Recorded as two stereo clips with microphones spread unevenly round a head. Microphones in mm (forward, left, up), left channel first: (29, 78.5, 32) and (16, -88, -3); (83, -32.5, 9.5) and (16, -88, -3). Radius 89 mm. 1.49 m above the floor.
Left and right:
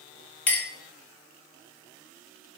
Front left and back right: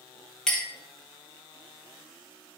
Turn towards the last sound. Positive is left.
turn(degrees=90)